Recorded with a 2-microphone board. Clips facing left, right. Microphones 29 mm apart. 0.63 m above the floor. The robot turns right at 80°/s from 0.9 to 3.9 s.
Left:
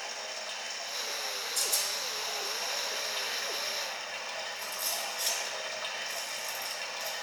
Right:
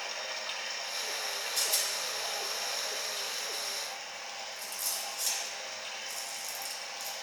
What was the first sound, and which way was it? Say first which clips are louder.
Running water: right 1 dB; 155° right.